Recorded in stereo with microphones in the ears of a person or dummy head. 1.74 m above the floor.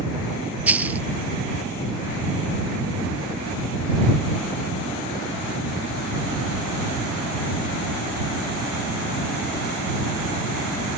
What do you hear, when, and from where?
0.7 s a dropped coin: 10° right (ahead or behind)